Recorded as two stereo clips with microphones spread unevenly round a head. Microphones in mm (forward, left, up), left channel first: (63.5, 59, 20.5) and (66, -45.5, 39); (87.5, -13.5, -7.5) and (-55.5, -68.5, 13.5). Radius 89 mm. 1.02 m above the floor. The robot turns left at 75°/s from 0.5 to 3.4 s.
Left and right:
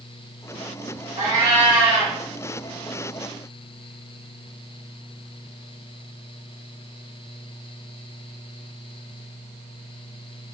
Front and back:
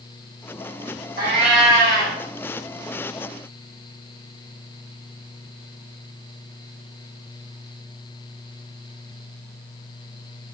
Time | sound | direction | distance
1.2 | a cat meowing | 135° right | 1.2 m